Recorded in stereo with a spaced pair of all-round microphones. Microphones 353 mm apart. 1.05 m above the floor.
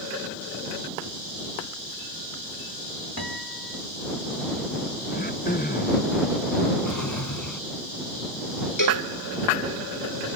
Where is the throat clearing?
25° left (ahead or behind).